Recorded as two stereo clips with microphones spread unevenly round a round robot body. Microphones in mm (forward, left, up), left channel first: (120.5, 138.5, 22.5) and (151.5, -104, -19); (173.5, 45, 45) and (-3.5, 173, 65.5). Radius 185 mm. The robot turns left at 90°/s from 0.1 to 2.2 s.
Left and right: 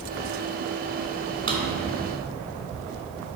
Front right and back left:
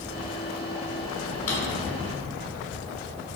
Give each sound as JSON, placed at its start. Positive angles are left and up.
{"t": 1.5, "sound": "a drawer", "azimuth_deg": -45, "distance_m": 2.0}